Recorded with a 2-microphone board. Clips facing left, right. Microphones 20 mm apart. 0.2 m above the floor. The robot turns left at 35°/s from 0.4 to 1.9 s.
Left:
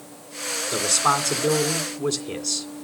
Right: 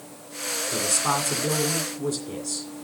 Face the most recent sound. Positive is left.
turn(degrees=100)